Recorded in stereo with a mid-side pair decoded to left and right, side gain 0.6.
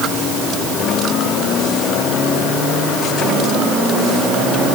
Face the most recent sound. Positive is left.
No sound to turn to.